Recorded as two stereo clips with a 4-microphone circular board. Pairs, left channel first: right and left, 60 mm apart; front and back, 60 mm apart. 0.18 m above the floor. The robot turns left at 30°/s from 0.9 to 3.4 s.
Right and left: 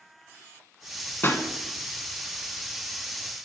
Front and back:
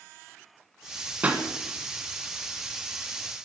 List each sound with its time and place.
1.2 s a pop: 125° right, 1.2 m; by 1.4 s 130° right, 1.2 m